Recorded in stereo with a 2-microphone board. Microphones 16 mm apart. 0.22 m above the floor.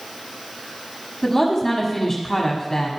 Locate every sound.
1.2 s a woman speaking: 20° left (ahead or behind), 1.3 m